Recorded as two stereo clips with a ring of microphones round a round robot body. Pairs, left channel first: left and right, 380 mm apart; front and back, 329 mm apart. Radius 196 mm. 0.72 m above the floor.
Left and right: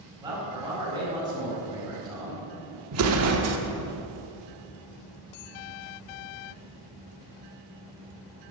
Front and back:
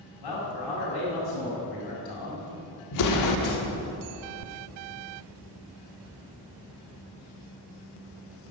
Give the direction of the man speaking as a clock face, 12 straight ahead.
12 o'clock.